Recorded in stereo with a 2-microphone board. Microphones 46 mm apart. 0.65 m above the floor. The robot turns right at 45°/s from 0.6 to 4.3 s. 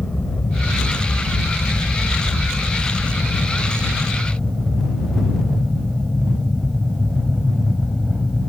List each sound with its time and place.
0.0 s an aircraft: 30° left (ahead or behind); by 8.5 s 20° right (ahead or behind)